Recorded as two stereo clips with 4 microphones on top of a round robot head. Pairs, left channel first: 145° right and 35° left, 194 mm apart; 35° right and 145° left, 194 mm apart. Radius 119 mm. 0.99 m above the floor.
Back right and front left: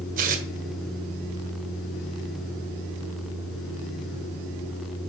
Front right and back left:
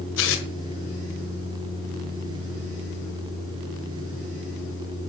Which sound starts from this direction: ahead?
Tearing paper, at 0.2 s.